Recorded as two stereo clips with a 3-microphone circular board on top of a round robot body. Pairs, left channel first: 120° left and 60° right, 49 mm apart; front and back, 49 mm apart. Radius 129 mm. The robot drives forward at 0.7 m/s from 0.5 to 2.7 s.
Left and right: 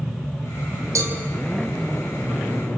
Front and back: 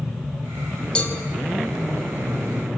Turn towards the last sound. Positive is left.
turn(degrees=-85)